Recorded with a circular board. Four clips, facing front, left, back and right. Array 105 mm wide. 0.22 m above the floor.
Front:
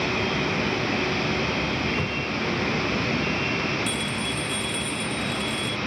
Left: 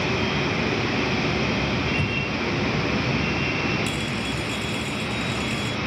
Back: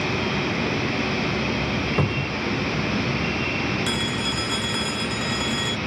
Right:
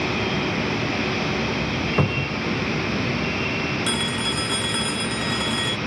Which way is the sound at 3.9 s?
130° right.